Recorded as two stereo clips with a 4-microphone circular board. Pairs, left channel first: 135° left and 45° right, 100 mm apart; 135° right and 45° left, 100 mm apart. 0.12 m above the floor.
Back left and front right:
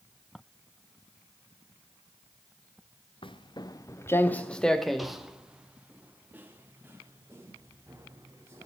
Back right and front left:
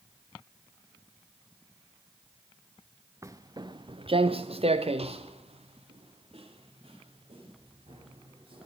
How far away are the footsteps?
About 1.0 m.